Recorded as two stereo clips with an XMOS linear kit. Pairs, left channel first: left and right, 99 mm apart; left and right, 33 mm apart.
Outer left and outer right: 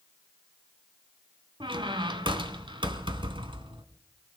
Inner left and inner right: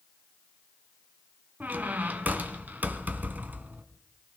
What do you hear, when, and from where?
1.6 s a squeak: 55° right (ahead or behind), 1.2 m